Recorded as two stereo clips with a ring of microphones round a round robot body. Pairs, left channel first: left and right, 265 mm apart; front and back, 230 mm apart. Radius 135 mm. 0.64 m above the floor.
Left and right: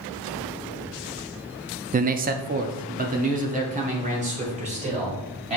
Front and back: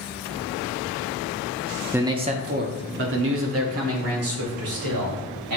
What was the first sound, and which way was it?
A man speaking, 105° right.